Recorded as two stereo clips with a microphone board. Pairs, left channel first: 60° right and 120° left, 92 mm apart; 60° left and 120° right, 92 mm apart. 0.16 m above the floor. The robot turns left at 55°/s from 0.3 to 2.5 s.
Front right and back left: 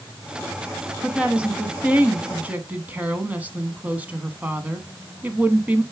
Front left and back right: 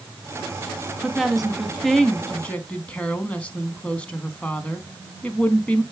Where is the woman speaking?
Straight behind, 1.0 m; by 5.8 s 100° left, 1.0 m.